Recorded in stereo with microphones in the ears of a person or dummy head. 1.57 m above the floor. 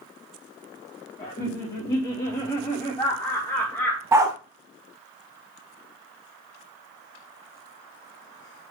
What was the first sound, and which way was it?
Laughter, 35° left (ahead or behind).